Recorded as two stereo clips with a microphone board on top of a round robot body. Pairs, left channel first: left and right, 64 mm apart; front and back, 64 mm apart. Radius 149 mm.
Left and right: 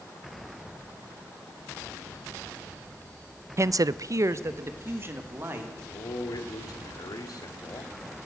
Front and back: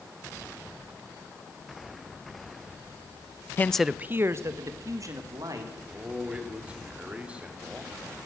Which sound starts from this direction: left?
A man speaking, at 5.8 s.